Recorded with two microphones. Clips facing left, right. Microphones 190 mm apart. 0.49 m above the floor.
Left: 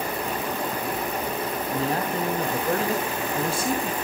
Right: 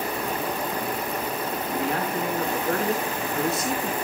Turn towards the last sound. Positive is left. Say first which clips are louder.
# left 1 dB
turn(degrees=30)  # may be behind; listen again after turning